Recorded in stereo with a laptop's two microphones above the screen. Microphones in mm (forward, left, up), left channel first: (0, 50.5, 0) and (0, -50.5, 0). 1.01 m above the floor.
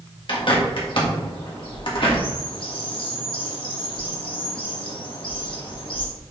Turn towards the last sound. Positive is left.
turn(degrees=55)  # may be behind; listen again after turning